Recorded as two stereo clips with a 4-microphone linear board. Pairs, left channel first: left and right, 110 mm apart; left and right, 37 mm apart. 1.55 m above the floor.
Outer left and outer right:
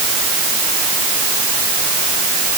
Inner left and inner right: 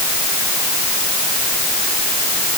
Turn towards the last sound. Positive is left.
No sound to turn to.